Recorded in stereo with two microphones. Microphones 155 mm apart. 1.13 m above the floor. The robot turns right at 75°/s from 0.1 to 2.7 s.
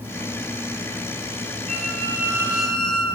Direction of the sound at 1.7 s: 70° right.